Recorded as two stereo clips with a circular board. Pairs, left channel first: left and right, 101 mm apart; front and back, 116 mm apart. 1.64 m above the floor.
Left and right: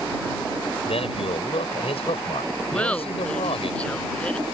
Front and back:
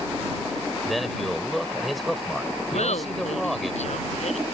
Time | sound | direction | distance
0.8 | a man speaking | 90° left | ?
2.7 | laughter | 10° left | ?